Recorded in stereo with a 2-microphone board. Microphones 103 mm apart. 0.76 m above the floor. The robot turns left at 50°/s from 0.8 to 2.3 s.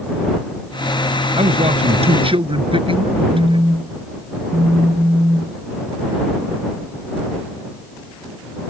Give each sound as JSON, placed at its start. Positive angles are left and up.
{"t": 1.4, "sound": "a man speaking", "azimuth_deg": -75}
{"t": 3.3, "sound": "a phone buzzing", "side_deg": -45}